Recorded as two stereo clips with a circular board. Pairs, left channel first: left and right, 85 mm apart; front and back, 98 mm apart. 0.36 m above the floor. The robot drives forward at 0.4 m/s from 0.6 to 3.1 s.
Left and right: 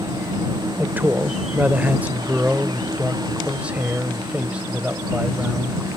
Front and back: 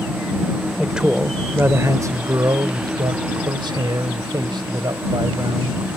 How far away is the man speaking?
About 0.9 m.